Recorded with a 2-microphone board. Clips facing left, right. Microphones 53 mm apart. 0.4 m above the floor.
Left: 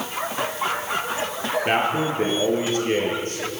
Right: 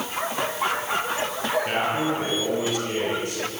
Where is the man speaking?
35° left (ahead or behind), 8.5 m; by 3.4 s 40° left (ahead or behind), 7 m.